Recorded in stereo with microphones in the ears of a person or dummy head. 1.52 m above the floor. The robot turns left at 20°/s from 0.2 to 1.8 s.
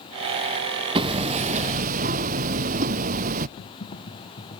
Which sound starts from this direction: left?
Typing on a keyboard, at 3.6 s.